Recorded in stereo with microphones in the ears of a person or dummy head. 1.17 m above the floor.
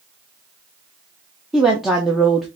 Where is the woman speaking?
Centre (ahead or behind), 0.7 m.